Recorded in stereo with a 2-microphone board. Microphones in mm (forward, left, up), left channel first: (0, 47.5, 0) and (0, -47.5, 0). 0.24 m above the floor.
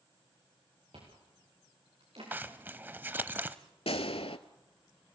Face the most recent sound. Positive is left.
turn(degrees=90)